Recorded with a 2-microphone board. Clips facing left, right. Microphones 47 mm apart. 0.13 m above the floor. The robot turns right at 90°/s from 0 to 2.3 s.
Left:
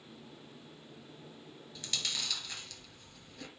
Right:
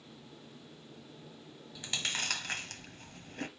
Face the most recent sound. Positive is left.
turn(degrees=-50)  # may be behind; listen again after turning